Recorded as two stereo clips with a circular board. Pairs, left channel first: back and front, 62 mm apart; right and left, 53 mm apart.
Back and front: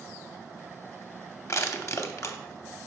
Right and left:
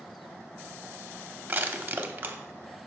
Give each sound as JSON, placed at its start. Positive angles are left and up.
{"t": 1.5, "sound": "crushing", "azimuth_deg": 140, "distance_m": 0.6}